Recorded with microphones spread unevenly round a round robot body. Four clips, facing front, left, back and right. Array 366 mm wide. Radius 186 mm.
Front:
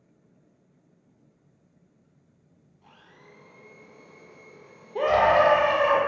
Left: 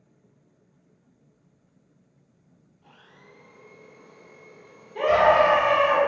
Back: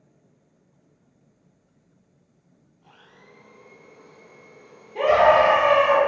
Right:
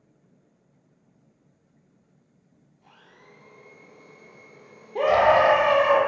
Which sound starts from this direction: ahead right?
A scream, at 5.0 s.